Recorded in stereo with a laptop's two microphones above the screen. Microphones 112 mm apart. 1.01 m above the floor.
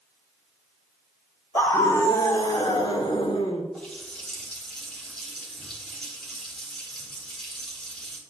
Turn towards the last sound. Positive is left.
turn(degrees=5)  # may be behind; listen again after turning